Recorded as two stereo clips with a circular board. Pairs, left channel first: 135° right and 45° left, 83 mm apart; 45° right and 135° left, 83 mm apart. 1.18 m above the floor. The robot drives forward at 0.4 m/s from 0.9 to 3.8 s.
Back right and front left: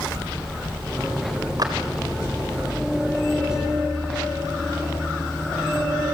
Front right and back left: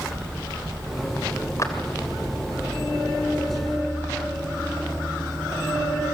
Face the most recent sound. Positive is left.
turn(degrees=5)